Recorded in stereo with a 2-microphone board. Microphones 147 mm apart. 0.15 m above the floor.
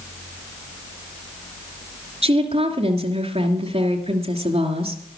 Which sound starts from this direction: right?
A woman speaking, at 2.2 s.